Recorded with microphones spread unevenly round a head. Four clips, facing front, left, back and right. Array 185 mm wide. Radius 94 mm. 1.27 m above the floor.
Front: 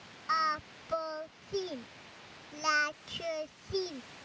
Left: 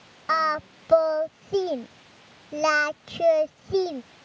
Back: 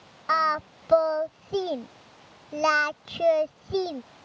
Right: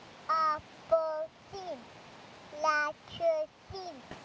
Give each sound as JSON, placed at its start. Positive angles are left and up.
{"t": 0.3, "sound": "singing", "azimuth_deg": 120}